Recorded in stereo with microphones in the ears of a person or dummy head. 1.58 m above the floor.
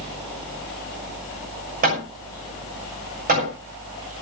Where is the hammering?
40° right (ahead or behind), 6.5 m.